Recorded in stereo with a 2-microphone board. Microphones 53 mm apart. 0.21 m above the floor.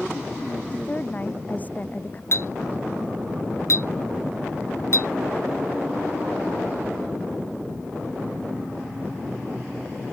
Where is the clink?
55° left (ahead or behind).